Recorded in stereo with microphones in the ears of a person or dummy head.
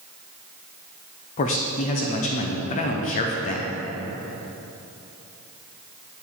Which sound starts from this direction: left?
A man speaking, at 1.4 s.